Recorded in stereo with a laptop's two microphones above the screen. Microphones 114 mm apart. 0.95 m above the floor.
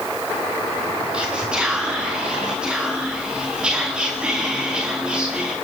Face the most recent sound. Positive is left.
turn(degrees=-10)  # may be behind; listen again after turning